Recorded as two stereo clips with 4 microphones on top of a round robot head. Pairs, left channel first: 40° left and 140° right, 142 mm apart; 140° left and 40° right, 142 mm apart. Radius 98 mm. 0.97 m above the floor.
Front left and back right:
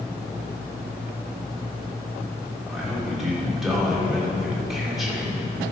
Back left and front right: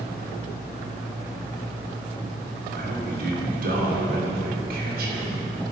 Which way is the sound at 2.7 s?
50° right.